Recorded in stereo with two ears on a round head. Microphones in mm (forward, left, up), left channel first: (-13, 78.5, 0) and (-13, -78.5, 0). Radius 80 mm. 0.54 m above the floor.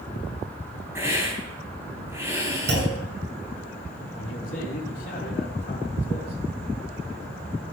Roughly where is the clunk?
Right.